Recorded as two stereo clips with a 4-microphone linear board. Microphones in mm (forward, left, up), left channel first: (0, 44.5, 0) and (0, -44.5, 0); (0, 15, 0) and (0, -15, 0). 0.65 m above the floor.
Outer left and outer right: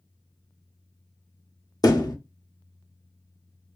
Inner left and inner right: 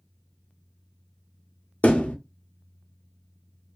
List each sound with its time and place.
1.8 s a thud: 45° left (ahead or behind), 0.6 m